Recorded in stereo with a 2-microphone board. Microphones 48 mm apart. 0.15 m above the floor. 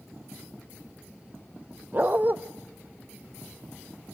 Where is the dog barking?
35° right (ahead or behind), 1.5 m.